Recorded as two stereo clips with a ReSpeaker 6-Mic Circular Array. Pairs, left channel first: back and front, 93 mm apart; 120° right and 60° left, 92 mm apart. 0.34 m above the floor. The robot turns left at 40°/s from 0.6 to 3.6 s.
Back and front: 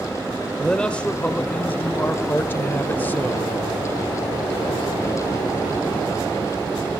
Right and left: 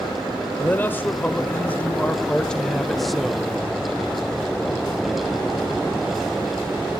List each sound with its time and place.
0.6 s a man speaking: 110° right, 0.9 m; by 3.5 s 135° left, 0.9 m